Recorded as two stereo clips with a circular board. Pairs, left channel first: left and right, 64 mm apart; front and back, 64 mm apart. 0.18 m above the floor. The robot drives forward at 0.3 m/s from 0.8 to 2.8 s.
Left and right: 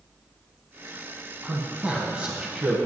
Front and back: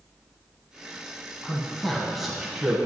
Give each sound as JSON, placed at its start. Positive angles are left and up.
{"t": 1.4, "sound": "a man speaking", "azimuth_deg": -65, "distance_m": 1.1}